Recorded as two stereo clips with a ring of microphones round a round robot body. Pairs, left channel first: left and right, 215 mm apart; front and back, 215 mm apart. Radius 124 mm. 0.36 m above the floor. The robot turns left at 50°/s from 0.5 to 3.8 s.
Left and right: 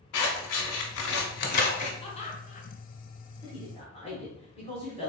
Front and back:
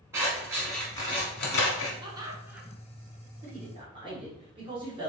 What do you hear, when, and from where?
0.1 s scissors: 100° left, 1.1 m; by 1.9 s 30° left, 1.1 m
2.0 s laughter: 130° left, 0.9 m; by 2.7 s 95° left, 0.9 m
3.4 s a man speaking: 150° left, 1.8 m; by 5.1 s 130° left, 1.8 m